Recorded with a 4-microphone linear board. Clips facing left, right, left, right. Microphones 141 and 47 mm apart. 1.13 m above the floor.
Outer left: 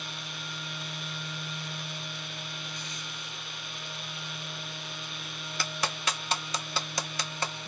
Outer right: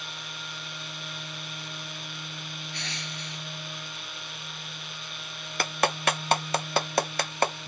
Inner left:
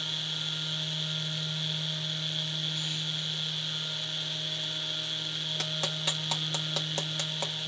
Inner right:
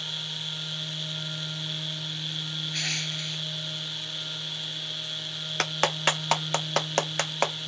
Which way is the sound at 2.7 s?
80° right.